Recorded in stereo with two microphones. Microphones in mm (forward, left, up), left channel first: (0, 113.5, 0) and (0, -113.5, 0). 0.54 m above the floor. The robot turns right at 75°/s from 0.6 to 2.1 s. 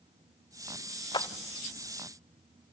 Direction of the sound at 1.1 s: 20° left (ahead or behind).